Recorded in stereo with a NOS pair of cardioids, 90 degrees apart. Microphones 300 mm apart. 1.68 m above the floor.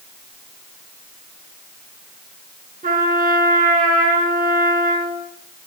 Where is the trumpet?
30° right, 7 m.